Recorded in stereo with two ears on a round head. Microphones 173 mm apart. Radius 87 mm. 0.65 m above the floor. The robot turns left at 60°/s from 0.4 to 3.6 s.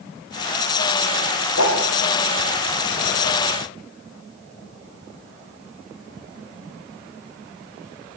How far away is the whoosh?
About 9.5 m.